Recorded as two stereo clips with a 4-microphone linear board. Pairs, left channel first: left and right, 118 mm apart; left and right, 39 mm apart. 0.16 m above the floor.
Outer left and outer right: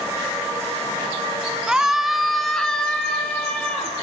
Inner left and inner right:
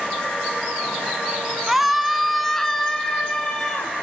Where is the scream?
10° right (ahead or behind), 1.0 m; by 3.9 s 10° left (ahead or behind), 3 m.